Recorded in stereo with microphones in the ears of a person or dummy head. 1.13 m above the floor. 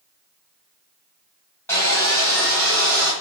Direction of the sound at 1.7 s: 20° left (ahead or behind).